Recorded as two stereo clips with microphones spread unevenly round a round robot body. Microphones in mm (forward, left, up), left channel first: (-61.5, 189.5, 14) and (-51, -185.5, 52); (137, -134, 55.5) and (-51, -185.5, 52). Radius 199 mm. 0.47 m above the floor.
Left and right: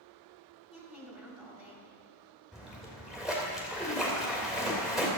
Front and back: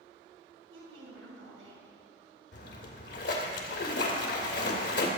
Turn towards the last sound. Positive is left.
turn(degrees=5)